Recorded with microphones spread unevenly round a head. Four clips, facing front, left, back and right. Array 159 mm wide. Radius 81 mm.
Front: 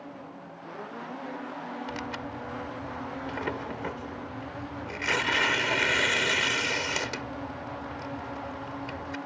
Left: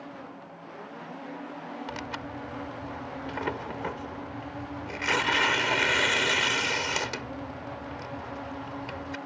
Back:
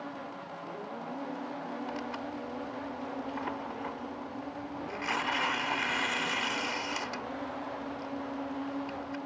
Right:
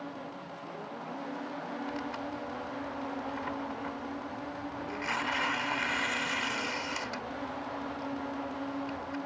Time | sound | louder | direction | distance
1.9 | tearing paper | even, front 1 dB | 60° left | ?